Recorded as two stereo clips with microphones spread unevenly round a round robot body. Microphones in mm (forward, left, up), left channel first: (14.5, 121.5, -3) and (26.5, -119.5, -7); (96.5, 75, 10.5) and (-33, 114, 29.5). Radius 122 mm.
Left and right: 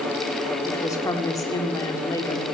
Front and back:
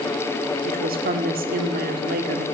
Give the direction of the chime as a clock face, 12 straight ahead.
No chime in this recording.